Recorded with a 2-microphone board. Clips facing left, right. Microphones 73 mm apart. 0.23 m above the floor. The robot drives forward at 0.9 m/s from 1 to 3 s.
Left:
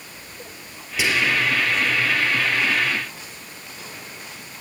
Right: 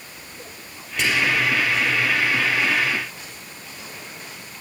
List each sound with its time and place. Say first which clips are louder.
1.0 s whispering: even; 5° left (ahead or behind), 5 m